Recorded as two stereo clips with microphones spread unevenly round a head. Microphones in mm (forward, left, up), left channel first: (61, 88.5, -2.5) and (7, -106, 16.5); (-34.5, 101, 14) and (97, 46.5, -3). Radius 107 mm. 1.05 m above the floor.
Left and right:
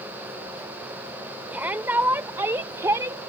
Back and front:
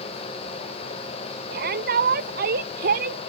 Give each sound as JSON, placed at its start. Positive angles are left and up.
{"t": 1.5, "sound": "a shout", "azimuth_deg": -25}